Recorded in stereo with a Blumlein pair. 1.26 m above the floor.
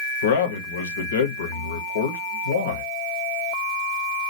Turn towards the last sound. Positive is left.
turn(degrees=65)